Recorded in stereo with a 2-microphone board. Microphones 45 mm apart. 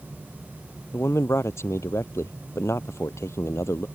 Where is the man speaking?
80° left.